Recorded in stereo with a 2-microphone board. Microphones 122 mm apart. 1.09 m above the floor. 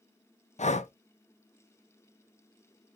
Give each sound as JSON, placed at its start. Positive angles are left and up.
{"t": 0.6, "sound": "breathing", "side_deg": 70, "distance_m": 0.6}